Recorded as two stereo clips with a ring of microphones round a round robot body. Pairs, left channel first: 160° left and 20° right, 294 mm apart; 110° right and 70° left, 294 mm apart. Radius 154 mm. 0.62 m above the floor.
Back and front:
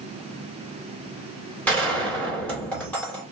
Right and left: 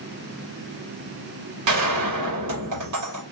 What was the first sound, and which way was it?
A gunshot, 75° left.